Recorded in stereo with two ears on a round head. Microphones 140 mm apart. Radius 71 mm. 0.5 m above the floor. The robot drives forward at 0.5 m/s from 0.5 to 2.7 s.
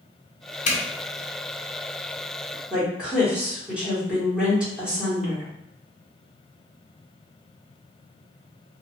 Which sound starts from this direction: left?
A zipper, at 0.7 s.